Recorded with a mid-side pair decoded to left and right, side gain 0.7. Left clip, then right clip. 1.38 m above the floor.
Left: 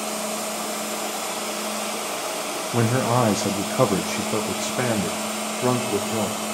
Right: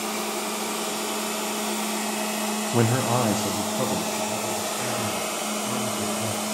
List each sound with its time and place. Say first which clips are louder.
2.7 s a man speaking: left 2 dB; straight ahead, 0.9 m; by 6.4 s 75° left, 2.5 m